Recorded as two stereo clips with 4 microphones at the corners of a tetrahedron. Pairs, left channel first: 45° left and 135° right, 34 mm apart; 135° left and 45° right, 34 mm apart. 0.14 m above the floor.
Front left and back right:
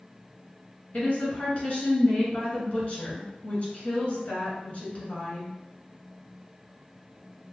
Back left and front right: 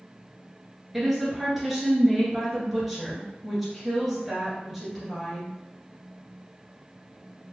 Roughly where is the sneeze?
No sneeze in this recording.